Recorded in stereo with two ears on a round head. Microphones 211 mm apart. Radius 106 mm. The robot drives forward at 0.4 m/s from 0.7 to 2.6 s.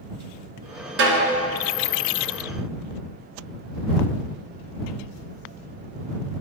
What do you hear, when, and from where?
1.0 s a snare drum: 55° right (ahead or behind), 1.9 m; by 1.4 s 50° right (ahead or behind), 2.0 m